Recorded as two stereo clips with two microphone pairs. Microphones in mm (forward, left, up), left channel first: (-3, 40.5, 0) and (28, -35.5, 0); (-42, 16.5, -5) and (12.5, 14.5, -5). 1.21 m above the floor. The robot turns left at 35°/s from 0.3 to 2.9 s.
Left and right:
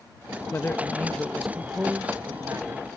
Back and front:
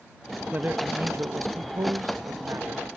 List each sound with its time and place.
0.5 s a man speaking: 55° left; by 2.9 s 25° right